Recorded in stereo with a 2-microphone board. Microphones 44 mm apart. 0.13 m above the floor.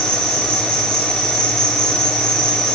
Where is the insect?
70° right (ahead or behind), 4 m.